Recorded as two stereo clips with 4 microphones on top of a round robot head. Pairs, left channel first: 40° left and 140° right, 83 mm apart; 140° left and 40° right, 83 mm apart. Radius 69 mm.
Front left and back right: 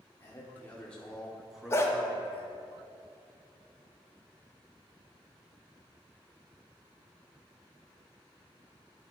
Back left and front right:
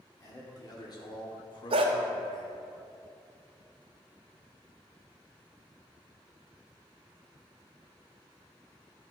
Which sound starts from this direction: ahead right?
A dog barking, at 1.7 s.